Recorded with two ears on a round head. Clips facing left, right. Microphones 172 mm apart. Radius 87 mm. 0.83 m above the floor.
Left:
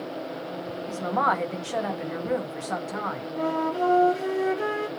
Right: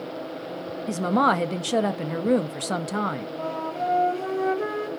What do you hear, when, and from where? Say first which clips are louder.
0.9 s a woman speaking: right 5 dB; 45° right (ahead or behind), 0.6 m
3.4 s a flute: left 6 dB; 15° left (ahead or behind), 2.0 m